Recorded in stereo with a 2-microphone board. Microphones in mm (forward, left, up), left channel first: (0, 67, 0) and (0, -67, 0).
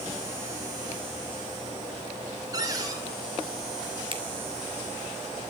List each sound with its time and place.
2.5 s a cupboard door: 25° right (ahead or behind), 4.5 m
4.1 s a finger snap: 40° right (ahead or behind), 2.5 m